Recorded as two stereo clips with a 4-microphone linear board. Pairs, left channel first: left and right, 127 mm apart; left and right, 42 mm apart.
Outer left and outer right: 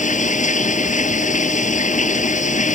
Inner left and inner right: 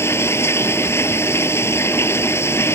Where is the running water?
70° left (ahead or behind).